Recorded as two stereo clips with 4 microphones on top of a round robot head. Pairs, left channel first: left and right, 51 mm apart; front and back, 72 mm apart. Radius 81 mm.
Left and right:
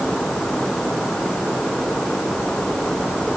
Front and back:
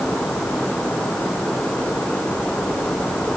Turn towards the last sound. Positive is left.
No sound to turn to.